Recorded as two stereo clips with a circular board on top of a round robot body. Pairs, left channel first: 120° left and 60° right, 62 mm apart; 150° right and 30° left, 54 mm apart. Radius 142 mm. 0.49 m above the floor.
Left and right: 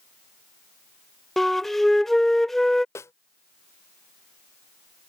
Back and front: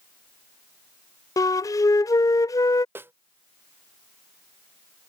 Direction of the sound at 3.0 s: 75° left.